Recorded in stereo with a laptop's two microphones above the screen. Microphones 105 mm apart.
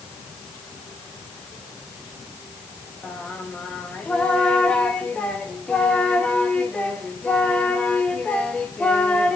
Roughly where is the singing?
Centre.